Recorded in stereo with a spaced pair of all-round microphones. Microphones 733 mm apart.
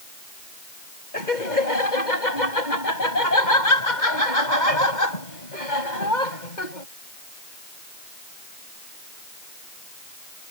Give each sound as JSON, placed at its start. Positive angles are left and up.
{"t": 1.1, "sound": "laughter", "side_deg": 85}